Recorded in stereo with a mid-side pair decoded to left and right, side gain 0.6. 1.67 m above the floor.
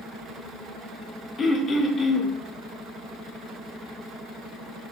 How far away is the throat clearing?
About 0.7 m.